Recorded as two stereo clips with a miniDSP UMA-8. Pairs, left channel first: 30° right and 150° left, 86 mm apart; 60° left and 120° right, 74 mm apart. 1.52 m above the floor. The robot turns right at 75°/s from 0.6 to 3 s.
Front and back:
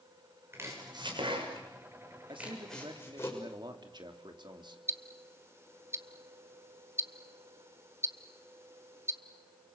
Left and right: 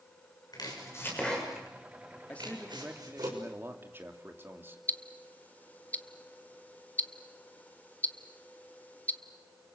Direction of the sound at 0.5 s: 85° left.